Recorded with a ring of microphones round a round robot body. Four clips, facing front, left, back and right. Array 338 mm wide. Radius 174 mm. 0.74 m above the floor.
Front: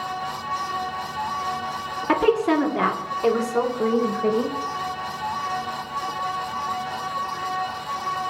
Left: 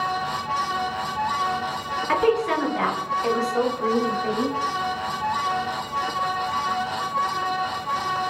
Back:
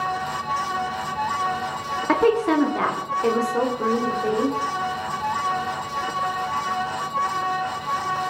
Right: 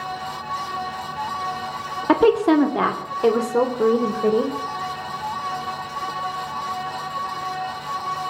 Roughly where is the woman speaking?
Right.